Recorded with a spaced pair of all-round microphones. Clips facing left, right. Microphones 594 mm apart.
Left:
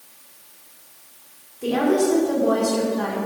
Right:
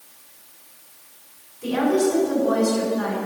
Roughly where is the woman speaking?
Left.